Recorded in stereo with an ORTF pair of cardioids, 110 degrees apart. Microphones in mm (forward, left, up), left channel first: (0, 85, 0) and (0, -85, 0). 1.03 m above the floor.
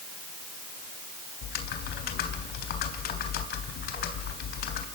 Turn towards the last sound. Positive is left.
turn(degrees=70)